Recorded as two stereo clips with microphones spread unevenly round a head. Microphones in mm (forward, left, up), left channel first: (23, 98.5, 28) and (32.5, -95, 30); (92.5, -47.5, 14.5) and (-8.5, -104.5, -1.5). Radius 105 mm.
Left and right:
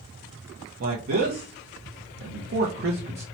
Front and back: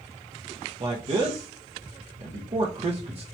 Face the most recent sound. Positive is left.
turn(degrees=-120)